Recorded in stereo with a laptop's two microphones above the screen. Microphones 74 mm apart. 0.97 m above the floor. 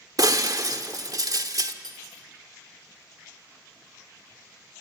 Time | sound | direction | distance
0.2 | breaking glass | 55° right (ahead or behind) | 1.1 m
1.8 | cutlery clinking | 85° right | 2 m